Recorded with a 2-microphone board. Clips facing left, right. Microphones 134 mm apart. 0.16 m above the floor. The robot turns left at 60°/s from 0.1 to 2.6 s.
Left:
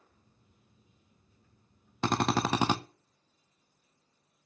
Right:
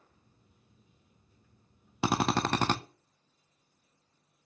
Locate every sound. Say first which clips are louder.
2.0 s a drill: even; 165° right, 0.6 m; by 2.8 s 160° left, 0.6 m